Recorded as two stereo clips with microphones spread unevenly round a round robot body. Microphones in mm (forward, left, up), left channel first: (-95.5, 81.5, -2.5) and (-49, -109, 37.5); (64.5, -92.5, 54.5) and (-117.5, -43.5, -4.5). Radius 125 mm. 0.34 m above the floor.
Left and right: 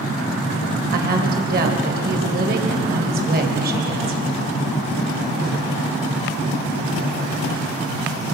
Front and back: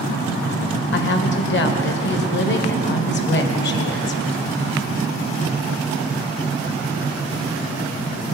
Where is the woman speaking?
35° right, 2.0 m.